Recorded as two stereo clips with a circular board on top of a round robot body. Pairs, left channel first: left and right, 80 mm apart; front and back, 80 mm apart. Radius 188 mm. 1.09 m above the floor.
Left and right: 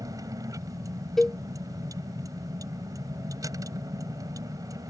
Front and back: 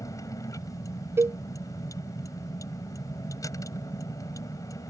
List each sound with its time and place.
0.0 s a vehicle: 45° right
1.2 s a cowbell: 170° left